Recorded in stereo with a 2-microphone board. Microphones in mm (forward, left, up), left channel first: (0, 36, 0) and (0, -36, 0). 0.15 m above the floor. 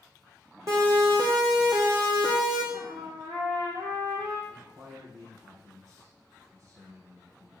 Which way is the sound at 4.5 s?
40° right (ahead or behind).